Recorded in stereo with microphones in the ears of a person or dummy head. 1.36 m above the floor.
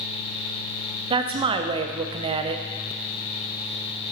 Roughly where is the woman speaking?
Right.